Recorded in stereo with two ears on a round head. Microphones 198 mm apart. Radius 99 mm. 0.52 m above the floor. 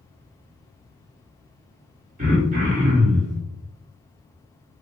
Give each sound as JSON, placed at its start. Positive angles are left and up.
{"t": 2.2, "sound": "throat clearing", "side_deg": -35, "distance_m": 1.3}